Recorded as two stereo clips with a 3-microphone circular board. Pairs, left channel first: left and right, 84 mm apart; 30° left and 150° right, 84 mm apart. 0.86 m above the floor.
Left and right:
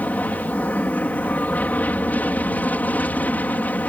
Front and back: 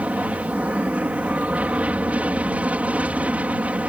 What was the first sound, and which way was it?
An aircraft, 145° left.